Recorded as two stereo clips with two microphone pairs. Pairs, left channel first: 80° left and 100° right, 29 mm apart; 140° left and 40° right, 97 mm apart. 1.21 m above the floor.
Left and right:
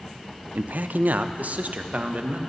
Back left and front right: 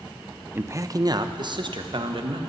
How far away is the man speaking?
About 0.5 m.